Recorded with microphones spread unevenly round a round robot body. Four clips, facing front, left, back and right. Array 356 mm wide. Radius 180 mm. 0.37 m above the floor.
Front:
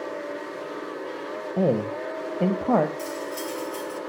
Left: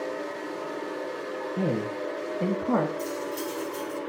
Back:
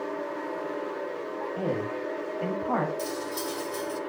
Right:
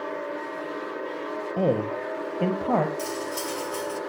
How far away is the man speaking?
About 1.5 m.